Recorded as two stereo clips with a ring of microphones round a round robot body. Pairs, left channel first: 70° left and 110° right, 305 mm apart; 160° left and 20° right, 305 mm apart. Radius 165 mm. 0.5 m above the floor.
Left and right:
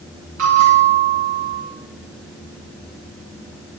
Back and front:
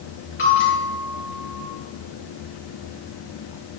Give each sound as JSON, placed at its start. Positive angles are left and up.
{"t": 0.4, "sound": "a bell", "azimuth_deg": -150, "distance_m": 9.0}